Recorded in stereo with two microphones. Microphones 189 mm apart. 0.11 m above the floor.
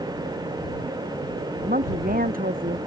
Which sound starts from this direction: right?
A woman speaking, at 1.6 s.